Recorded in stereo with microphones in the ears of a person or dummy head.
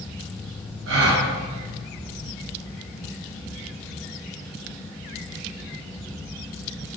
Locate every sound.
0.9 s a gasp: 60° right (ahead or behind), 3 m